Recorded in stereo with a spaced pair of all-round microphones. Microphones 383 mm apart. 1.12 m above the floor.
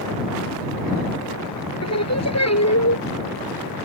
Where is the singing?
40° left (ahead or behind).